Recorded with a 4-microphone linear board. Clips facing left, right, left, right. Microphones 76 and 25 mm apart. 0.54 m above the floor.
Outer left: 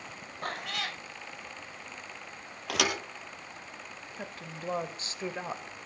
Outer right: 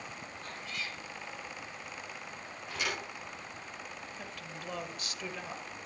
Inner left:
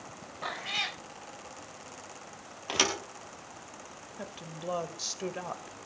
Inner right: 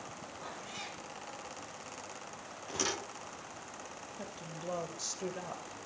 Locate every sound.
0.4 s a cat meowing: 70° left (ahead or behind), 1.0 m
2.7 s a thud: 75° left (ahead or behind), 3.5 m
4.2 s a woman speaking: 30° left (ahead or behind), 2.0 m